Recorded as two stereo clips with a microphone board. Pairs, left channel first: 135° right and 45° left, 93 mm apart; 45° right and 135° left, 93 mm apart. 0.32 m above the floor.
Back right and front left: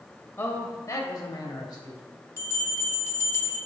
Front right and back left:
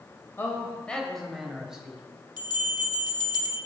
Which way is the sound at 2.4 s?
80° right.